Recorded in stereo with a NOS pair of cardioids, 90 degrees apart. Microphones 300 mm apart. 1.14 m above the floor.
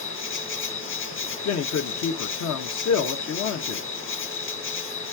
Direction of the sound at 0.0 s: 45° left.